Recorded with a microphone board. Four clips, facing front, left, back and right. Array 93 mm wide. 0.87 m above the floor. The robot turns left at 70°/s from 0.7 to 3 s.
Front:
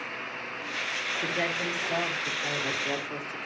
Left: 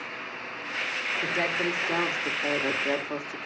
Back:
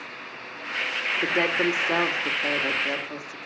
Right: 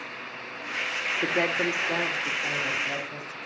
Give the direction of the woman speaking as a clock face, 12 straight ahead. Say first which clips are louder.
Right 3 dB, back 8 dB; 4 o'clock.